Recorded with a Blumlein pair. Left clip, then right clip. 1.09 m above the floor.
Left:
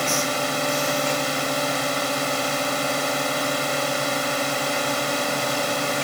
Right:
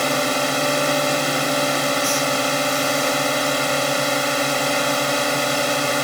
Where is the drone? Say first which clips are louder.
Right 3 dB; 10° right.